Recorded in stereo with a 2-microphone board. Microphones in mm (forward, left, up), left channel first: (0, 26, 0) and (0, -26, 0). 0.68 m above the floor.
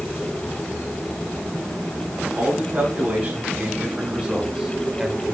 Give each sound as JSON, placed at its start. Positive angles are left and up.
{"t": 2.4, "sound": "a man speaking", "side_deg": -25, "distance_m": 4.5}